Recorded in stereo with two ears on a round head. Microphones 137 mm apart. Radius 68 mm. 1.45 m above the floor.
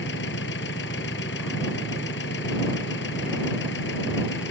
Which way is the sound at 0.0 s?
90° left.